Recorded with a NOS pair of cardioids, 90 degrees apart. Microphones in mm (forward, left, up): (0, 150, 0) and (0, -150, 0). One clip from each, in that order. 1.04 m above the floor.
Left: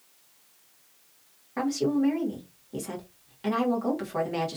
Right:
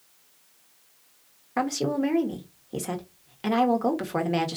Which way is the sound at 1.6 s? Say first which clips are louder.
Right 1 dB; 35° right.